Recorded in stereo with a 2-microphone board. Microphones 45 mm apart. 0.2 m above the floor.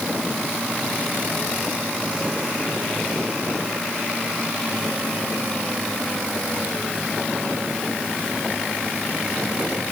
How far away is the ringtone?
No ringtone in this recording.